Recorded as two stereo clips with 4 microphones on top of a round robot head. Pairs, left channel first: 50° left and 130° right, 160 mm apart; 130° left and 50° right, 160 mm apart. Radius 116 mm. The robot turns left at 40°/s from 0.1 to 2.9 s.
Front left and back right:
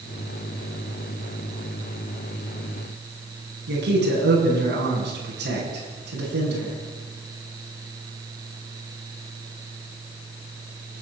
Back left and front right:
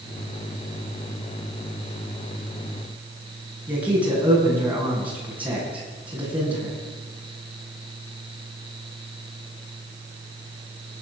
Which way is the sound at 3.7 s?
130° right.